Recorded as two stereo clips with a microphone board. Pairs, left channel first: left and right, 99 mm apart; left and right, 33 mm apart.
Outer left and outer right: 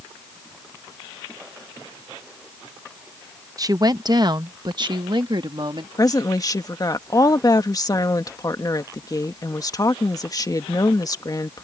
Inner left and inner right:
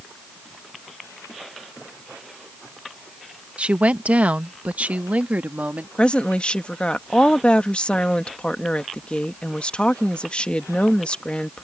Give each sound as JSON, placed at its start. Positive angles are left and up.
{"t": 3.6, "sound": "a woman speaking", "side_deg": -40}
{"t": 6.0, "sound": "a woman speaking", "side_deg": 40}